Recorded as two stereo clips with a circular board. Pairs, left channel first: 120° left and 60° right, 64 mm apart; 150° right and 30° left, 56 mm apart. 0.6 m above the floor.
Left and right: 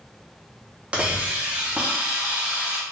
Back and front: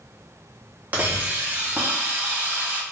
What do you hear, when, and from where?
0.9 s a hiss: 5° right, 0.7 m